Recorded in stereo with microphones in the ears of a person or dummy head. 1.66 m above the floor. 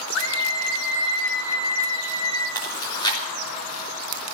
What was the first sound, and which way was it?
A scream, 75° left (ahead or behind).